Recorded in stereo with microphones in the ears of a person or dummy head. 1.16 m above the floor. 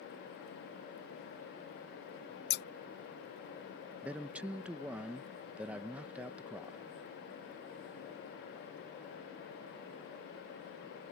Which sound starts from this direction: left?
Scissors, at 2.5 s.